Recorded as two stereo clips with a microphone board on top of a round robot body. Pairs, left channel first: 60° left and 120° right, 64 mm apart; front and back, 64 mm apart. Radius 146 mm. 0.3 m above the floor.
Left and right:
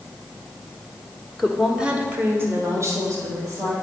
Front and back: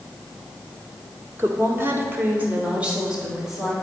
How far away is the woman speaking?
About 1.5 m.